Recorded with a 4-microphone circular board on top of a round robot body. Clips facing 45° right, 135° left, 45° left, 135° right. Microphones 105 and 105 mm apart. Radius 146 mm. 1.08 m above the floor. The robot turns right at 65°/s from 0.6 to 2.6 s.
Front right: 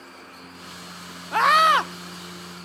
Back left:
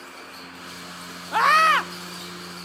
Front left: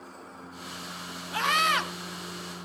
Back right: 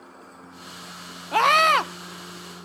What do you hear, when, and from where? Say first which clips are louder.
1.3 s a scream: front right 1 dB, back right 8 dB; 140° right, 1.4 m; by 1.9 s 105° right, 1.4 m